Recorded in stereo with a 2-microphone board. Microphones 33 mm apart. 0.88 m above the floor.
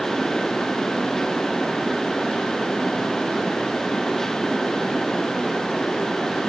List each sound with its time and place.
Only background noise.